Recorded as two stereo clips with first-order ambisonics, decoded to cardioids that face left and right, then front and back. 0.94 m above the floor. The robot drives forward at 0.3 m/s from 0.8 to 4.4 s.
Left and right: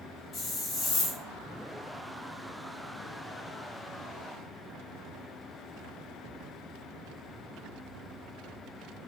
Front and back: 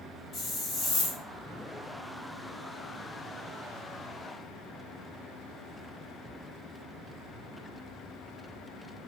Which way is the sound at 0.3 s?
40° left.